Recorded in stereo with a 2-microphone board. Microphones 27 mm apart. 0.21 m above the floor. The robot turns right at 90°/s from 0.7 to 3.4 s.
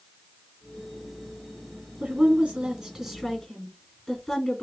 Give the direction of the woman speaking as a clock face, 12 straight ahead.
3 o'clock.